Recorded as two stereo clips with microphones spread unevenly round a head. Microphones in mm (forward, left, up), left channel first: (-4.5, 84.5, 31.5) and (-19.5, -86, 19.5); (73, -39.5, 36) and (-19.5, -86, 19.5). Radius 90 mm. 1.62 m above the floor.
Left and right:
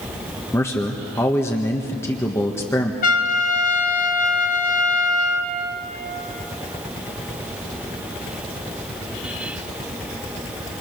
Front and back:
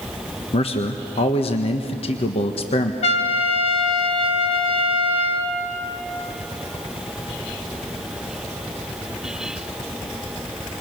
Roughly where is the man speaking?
Ahead.